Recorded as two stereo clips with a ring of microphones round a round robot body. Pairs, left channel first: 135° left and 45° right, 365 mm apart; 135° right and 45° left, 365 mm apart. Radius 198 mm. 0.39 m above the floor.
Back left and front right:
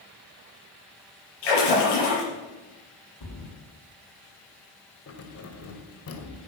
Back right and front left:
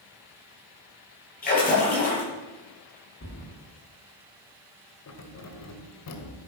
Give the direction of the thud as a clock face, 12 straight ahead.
7 o'clock.